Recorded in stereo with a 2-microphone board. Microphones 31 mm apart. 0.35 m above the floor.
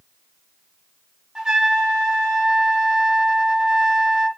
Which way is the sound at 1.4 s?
25° right (ahead or behind).